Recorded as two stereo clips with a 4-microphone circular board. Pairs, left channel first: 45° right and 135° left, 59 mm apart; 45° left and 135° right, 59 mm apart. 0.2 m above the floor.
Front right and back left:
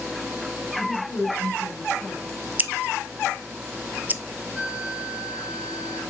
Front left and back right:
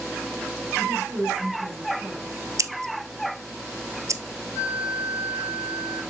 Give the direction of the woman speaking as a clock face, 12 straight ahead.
3 o'clock.